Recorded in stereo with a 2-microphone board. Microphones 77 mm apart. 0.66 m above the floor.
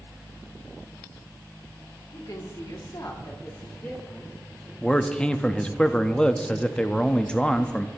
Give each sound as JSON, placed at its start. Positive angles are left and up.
{"t": 2.1, "sound": "a woman speaking", "side_deg": 45, "distance_m": 1.8}
{"t": 4.8, "sound": "a man speaking", "side_deg": 10, "distance_m": 0.5}